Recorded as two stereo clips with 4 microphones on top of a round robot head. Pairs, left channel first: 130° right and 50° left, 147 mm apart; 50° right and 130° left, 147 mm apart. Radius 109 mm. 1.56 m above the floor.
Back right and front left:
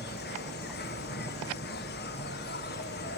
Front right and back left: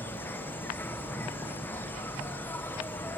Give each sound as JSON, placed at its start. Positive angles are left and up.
{"t": 0.0, "sound": "an insect", "azimuth_deg": -130}